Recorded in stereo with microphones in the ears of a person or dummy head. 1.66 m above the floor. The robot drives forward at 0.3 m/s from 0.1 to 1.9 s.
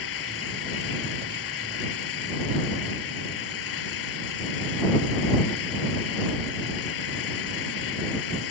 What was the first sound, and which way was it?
An engine running, 85° left.